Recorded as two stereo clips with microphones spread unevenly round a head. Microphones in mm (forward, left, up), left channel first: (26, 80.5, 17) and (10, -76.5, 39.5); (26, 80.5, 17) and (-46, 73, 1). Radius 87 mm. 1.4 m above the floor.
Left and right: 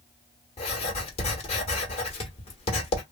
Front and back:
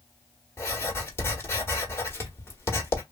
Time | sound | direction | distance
0.6 | writing | 30° left | 1.5 m